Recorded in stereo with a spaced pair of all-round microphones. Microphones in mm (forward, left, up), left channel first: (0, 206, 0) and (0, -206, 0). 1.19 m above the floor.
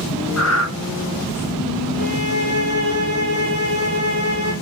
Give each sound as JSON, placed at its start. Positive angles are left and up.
{"t": 0.4, "sound": "breathing", "side_deg": 40, "distance_m": 0.9}
{"t": 2.0, "sound": "a violin", "side_deg": 45, "distance_m": 6.5}